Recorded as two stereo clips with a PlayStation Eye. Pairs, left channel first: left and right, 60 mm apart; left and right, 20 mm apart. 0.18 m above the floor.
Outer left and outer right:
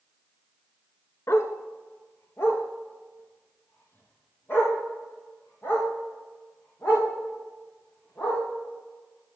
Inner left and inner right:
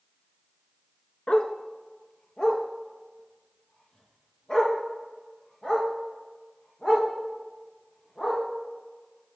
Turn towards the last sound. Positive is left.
turn(degrees=40)  # may be behind; listen again after turning